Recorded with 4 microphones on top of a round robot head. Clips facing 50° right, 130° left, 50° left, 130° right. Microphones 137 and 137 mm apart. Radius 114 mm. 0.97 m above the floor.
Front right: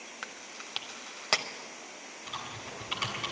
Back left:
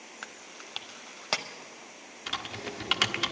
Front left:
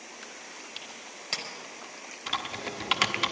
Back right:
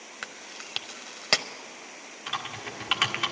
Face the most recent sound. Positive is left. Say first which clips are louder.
# back left 5 dB, front left 2 dB
turn(degrees=115)